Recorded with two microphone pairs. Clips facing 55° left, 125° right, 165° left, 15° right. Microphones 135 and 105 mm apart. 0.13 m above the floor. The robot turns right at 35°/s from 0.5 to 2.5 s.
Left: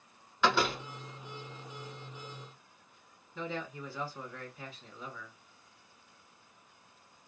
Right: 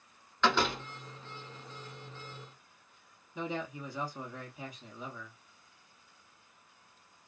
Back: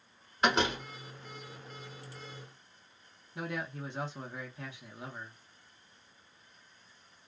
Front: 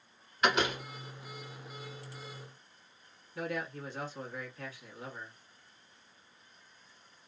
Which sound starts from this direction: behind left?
A door slam, at 0.4 s.